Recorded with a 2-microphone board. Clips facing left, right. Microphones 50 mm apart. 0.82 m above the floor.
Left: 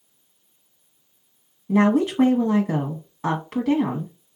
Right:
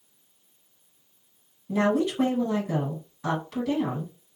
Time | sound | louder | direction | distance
1.7 | a woman speaking | left 5 dB | 45° left (ahead or behind) | 1.1 m